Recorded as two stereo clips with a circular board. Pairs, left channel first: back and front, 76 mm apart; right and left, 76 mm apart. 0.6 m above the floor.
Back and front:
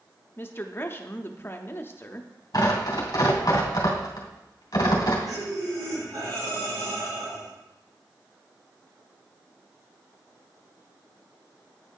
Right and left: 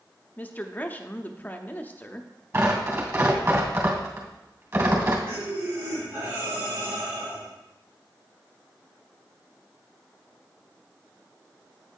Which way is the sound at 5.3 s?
30° left.